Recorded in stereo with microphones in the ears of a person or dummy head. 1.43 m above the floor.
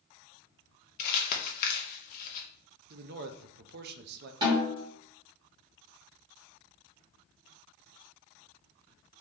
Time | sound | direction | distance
1.0 | crumpling | 55° left (ahead or behind) | 1.0 m
2.9 | a man speaking | 55° right (ahead or behind) | 0.6 m
4.4 | a snare drum | 25° right (ahead or behind) | 2.0 m